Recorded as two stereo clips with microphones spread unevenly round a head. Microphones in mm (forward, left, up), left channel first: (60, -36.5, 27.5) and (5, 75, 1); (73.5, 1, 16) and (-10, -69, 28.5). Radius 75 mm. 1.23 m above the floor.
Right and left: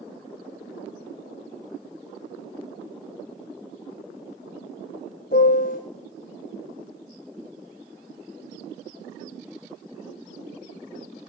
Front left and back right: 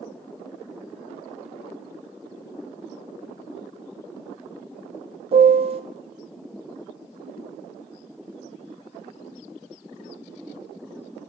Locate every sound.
5.3 s a piano: 105° right, 0.6 m